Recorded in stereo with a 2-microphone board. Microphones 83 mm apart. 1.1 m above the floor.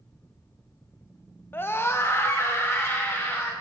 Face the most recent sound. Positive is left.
turn(degrees=30)  # may be behind; listen again after turning